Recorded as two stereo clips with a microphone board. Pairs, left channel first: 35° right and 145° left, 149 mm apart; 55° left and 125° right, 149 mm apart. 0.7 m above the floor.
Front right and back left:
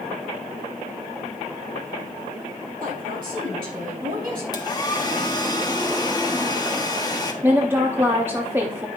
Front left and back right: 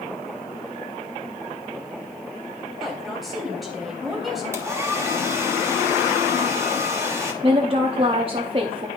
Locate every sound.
2.8 s a woman speaking: 145° left, 3 m
4.5 s a hair dryer: 70° right, 1.2 m
7.4 s a woman speaking: 150° right, 0.7 m